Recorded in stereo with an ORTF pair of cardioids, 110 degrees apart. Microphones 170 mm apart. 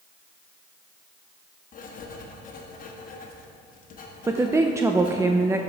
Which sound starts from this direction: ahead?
A woman speaking, at 4.3 s.